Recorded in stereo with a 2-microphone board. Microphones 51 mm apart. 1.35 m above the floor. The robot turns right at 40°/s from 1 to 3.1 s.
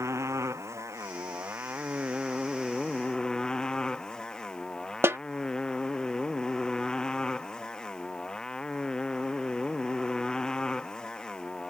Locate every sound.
0.0 s a motorcycle: 70° right; by 11.7 s 15° left
5.0 s a snare drum: 55° right (ahead or behind)